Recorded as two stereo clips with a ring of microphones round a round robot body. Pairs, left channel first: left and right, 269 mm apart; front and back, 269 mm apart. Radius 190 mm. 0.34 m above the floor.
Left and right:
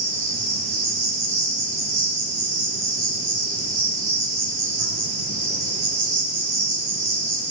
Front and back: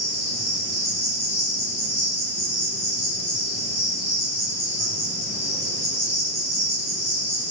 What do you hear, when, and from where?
0.0 s an insect: 95° right, 5 m